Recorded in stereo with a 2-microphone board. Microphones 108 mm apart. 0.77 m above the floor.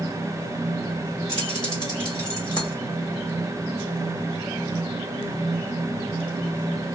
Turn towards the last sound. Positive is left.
turn(degrees=40)  # may be behind; listen again after turning